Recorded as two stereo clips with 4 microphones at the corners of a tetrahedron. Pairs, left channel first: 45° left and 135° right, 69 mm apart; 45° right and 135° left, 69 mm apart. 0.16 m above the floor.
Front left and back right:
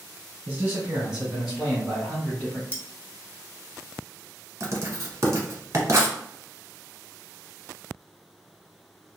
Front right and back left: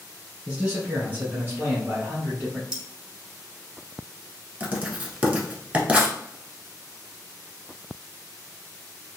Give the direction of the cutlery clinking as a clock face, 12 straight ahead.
10 o'clock.